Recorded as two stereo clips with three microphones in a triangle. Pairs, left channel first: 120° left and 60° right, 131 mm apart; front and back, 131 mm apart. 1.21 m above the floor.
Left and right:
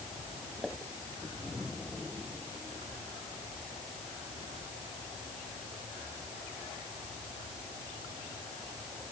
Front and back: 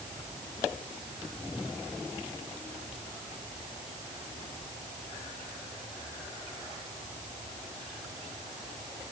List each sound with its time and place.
Only background noise.